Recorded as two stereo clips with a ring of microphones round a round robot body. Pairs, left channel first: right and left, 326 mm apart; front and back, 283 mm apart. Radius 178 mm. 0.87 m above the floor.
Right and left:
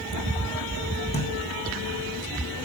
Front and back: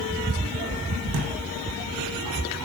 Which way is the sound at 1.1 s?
160° right.